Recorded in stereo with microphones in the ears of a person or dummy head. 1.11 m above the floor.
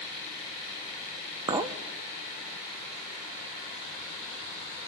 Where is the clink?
25° right (ahead or behind), 0.8 m.